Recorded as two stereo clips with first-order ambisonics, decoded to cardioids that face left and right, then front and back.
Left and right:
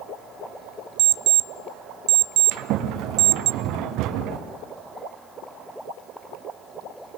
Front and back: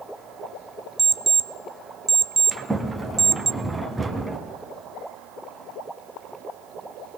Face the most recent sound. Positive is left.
turn(degrees=-100)